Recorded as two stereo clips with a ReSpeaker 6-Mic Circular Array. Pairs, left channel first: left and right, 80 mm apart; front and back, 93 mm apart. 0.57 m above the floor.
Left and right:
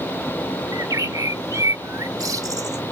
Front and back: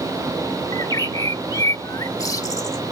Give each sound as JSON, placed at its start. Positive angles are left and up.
{"t": 0.7, "sound": "a bird", "azimuth_deg": -50}